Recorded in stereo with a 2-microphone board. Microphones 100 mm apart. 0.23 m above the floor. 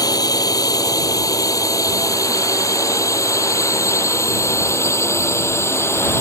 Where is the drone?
40° left (ahead or behind); by 6.2 s 25° left (ahead or behind).